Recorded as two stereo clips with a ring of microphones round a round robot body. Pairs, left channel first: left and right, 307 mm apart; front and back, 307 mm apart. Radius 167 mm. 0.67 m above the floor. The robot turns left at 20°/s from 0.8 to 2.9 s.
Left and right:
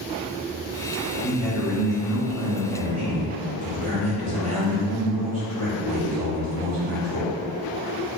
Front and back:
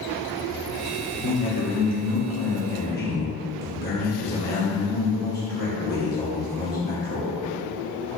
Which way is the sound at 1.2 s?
5° right.